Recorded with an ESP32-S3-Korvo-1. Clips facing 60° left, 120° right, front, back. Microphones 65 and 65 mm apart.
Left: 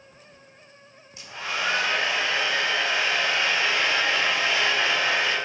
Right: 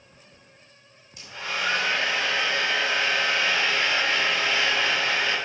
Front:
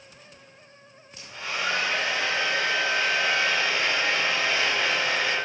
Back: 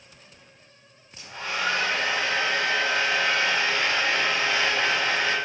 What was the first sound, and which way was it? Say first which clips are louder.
A hair dryer: left 1 dB, back 2 dB; 125° left.